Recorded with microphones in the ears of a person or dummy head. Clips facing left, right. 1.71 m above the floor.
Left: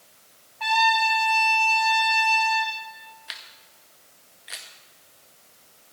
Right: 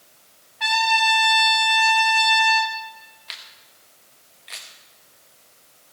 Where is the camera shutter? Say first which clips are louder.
Even; 5° left (ahead or behind), 1.4 m.